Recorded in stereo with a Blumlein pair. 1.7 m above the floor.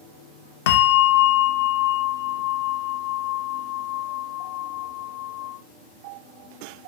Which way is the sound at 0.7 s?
55° left.